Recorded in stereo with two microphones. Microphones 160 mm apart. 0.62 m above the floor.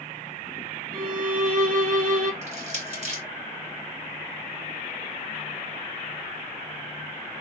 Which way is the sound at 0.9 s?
60° right (ahead or behind).